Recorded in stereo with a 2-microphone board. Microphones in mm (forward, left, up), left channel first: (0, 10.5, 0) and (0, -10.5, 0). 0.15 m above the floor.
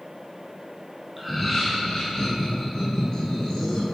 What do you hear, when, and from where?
1.2 s laughter: 10° right (ahead or behind), 1.1 m; by 3.9 s 40° left (ahead or behind), 2.5 m